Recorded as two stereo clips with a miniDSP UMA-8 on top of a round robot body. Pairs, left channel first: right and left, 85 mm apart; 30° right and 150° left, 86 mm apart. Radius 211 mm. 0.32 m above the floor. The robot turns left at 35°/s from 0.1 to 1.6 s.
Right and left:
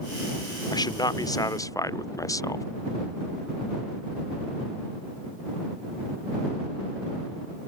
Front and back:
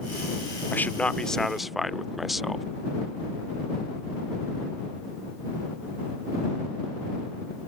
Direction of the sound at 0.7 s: 90° right.